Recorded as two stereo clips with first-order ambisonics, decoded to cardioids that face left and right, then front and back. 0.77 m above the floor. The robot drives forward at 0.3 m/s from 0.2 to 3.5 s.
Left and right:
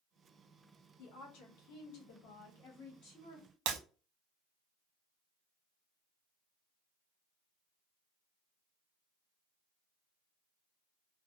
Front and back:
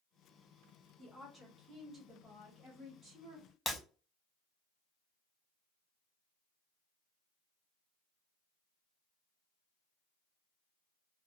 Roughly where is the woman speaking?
Left.